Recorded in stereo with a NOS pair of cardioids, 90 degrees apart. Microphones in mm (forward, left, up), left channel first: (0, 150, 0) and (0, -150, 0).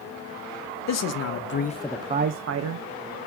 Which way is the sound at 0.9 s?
65° left.